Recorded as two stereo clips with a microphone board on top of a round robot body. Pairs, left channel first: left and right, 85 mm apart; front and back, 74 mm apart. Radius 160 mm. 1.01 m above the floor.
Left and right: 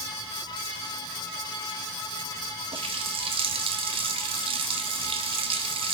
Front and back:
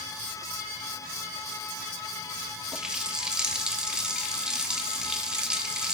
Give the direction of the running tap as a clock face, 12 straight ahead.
3 o'clock.